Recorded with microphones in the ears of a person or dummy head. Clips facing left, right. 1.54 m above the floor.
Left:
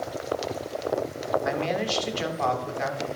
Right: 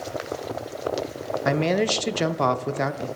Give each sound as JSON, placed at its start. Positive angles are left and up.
{"t": 1.4, "sound": "a man speaking", "side_deg": -60, "distance_m": 0.6}